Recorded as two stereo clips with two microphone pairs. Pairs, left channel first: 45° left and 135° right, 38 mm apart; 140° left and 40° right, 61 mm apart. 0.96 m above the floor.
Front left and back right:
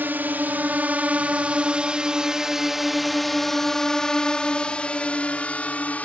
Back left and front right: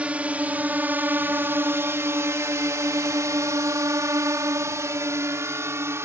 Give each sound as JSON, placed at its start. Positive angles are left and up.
{"t": 0.0, "sound": "a drone", "azimuth_deg": -105}